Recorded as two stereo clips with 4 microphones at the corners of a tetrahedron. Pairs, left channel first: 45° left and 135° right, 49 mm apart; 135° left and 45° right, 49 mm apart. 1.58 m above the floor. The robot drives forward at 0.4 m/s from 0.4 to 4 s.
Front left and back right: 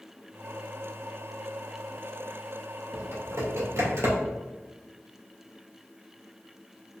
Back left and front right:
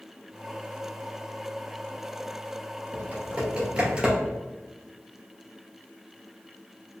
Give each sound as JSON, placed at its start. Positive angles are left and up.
{"t": 2.9, "sound": "typing on a keyboard", "azimuth_deg": -105, "distance_m": 1.8}